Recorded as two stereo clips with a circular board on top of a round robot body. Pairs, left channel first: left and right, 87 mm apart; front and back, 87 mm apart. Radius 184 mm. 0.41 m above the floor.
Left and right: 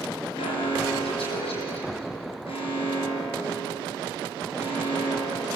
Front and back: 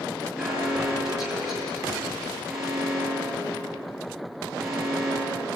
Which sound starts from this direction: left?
An alarm, at 0.4 s.